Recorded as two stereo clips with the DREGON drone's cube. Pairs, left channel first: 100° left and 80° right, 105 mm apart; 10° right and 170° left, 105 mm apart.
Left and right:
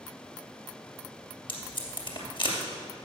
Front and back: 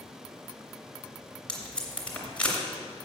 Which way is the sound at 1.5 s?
65° left.